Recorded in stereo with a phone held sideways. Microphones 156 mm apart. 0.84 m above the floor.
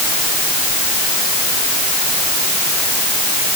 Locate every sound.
Only background noise.